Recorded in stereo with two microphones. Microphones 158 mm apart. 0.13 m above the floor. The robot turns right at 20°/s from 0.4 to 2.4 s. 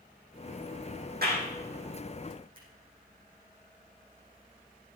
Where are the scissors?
65° right (ahead or behind), 7 m.